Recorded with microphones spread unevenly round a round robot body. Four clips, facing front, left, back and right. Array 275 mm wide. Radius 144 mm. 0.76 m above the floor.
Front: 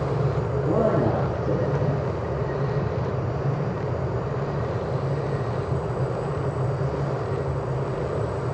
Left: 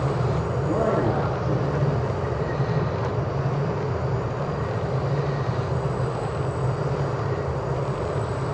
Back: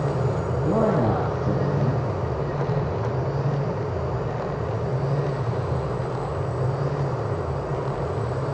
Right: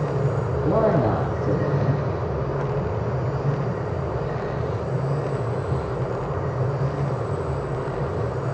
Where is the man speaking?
140° right, 5.5 m.